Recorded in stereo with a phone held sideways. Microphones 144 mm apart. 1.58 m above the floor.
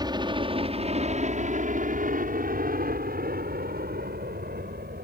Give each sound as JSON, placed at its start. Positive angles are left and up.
{"t": 0.0, "sound": "a helicopter", "side_deg": -30}